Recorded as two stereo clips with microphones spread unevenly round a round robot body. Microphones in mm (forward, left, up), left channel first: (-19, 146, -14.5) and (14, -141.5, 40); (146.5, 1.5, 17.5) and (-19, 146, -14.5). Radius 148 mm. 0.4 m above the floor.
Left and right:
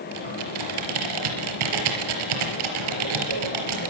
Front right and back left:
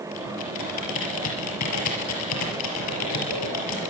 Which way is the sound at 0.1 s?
80° right.